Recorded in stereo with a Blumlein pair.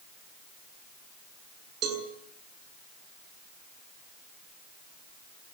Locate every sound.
1.8 s a cowbell: 30° right, 7.5 m